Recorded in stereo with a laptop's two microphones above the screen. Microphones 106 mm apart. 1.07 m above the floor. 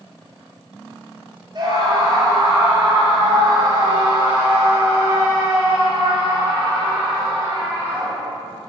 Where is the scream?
40° right (ahead or behind), 4 m; by 8.3 s 15° right (ahead or behind), 9 m.